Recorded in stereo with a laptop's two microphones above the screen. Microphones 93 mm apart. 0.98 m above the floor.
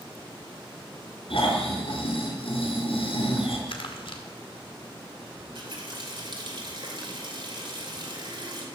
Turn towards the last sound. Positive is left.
turn(degrees=-60)  # may be behind; listen again after turning